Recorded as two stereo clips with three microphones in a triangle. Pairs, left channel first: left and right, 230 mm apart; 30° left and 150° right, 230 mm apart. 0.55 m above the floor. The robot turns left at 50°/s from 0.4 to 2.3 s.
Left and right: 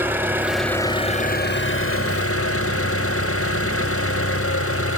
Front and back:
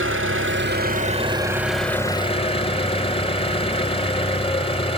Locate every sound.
0.0 s an engine running: 170° right, 0.8 m; by 5.0 s 95° left, 0.8 m